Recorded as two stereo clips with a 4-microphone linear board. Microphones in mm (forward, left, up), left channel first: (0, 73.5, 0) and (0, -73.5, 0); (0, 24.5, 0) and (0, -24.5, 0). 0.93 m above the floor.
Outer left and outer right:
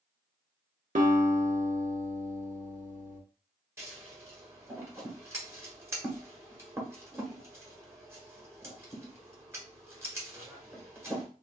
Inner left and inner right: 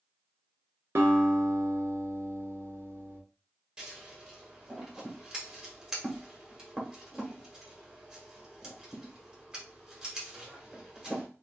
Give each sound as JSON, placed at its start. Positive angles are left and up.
{"t": 0.9, "sound": "a guitar", "side_deg": -60, "distance_m": 1.0}
{"t": 3.8, "sound": "scissors", "side_deg": -15, "distance_m": 1.4}